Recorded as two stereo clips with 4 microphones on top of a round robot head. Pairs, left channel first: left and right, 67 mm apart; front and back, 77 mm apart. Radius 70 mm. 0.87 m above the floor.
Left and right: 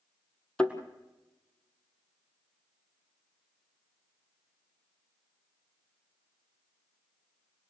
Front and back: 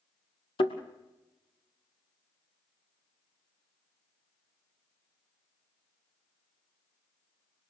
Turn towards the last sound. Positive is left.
turn(degrees=15)